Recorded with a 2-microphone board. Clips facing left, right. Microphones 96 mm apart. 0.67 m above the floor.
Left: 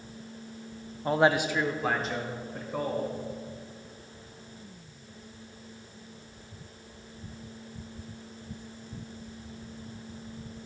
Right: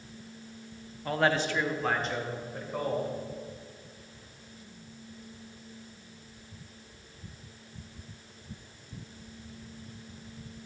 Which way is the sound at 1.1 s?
25° left (ahead or behind).